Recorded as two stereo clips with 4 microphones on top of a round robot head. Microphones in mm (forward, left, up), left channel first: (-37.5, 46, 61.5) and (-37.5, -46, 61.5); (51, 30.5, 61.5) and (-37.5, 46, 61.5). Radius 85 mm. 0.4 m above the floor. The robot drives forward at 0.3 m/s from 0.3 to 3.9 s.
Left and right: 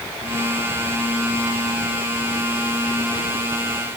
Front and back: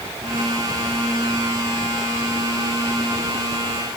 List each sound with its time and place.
Only background noise.